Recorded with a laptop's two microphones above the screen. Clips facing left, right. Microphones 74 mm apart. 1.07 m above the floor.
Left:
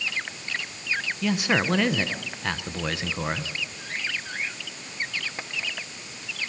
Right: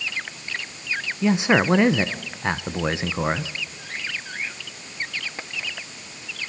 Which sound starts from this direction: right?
A man speaking, at 1.2 s.